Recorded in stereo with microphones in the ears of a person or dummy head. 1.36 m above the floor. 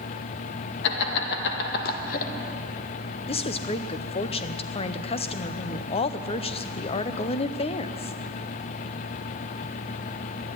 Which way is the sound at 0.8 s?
65° left (ahead or behind).